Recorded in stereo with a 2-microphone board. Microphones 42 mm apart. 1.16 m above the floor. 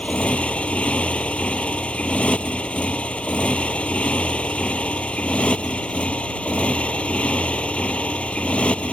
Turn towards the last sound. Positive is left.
turn(degrees=30)  # may be behind; listen again after turning